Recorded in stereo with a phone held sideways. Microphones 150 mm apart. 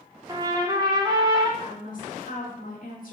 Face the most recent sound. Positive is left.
turn(degrees=65)  # may be behind; listen again after turning